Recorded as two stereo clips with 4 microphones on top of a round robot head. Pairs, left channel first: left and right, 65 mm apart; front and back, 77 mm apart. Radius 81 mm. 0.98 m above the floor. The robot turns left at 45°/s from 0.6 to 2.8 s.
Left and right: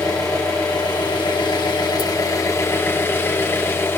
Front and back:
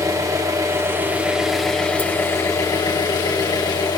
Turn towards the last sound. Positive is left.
turn(degrees=35)